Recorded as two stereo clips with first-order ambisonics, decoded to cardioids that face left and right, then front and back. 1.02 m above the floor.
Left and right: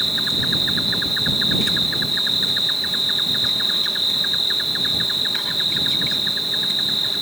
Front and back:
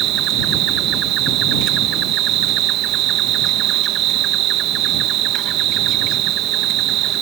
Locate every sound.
0.0 s an insect: straight behind